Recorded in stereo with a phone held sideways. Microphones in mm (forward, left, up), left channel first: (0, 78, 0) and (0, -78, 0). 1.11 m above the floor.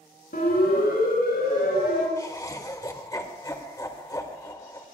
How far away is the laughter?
About 1.9 m.